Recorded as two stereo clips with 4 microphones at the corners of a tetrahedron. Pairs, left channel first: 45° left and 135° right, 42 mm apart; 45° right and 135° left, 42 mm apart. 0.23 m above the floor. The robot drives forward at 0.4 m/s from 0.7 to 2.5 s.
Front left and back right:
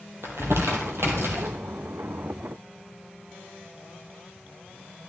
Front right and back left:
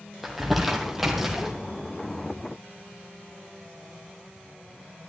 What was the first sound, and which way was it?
Crumpling, 140° right.